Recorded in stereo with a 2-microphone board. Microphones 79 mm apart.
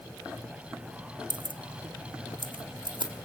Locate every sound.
1.3 s keys jangling: 75° right (ahead or behind), 0.6 m; by 3.1 s 80° right, 2.0 m